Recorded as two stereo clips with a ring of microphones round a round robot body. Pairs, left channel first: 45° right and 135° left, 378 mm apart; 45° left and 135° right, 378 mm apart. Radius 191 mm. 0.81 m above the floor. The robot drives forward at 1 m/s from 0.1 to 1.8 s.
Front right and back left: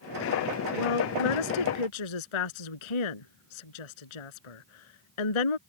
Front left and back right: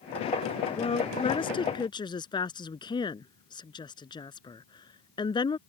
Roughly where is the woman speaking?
Ahead right.